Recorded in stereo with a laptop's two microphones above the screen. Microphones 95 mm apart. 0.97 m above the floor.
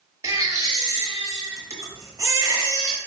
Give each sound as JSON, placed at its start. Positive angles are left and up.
{"t": 0.2, "sound": "a baby crying", "side_deg": -30, "distance_m": 0.8}